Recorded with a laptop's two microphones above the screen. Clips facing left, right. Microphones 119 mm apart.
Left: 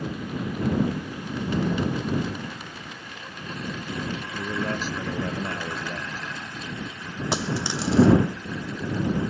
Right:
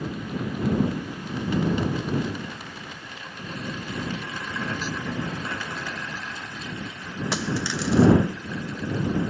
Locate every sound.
4.4 s a man speaking: 40° left (ahead or behind)
7.3 s a dropped coin: 25° left (ahead or behind)